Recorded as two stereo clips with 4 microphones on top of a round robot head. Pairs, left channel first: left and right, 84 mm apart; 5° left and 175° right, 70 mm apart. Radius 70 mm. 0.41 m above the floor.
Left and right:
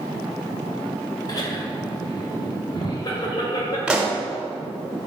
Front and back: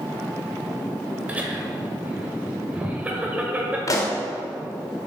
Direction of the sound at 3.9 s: 15° right.